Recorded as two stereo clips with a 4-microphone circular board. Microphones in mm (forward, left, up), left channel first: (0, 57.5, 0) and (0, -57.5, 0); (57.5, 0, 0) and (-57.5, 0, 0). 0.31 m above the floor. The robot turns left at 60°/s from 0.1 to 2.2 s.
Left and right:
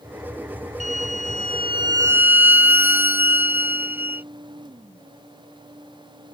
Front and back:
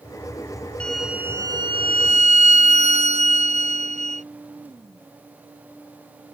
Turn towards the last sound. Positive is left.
turn(degrees=-165)